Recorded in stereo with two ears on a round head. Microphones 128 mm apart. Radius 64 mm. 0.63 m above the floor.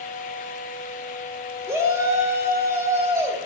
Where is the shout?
20° right (ahead or behind), 1.8 m.